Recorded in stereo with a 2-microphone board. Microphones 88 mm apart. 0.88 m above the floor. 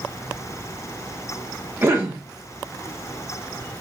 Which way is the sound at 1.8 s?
25° right (ahead or behind).